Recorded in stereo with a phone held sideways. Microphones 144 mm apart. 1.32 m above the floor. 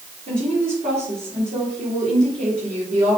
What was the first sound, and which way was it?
A woman speaking, 70° right (ahead or behind).